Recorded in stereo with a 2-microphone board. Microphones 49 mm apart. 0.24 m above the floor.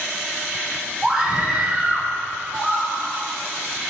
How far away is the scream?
About 1.1 m.